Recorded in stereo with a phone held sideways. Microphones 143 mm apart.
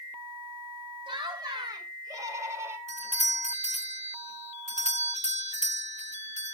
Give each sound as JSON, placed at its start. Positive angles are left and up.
{"t": 1.1, "sound": "laughter", "side_deg": -35, "distance_m": 3.0}
{"t": 2.9, "sound": "a doorbell", "side_deg": -55, "distance_m": 1.0}